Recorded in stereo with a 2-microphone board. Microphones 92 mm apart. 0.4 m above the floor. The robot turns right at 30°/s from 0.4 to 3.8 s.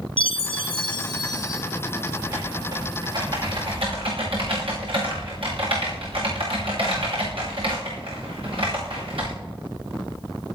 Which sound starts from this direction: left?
A chime, at 0.2 s.